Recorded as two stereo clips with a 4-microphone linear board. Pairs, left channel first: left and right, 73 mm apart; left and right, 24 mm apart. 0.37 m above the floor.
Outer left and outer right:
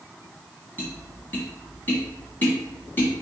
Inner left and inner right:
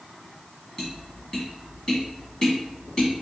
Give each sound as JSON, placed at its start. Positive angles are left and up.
{"t": 0.8, "sound": "tapping", "side_deg": 30, "distance_m": 2.0}